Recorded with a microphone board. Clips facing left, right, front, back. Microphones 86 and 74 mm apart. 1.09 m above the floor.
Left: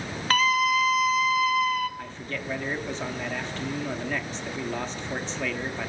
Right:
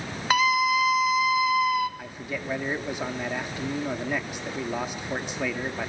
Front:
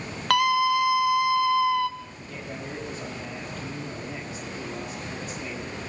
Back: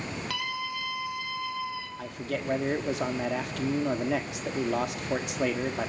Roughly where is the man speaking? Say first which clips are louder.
Right 1 dB, back 6 dB; behind.